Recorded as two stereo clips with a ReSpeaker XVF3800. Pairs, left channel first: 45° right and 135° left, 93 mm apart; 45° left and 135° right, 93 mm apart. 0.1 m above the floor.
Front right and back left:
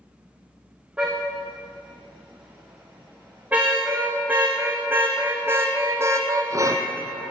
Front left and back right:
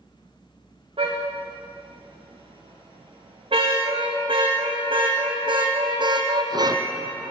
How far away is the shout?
No shout in this recording.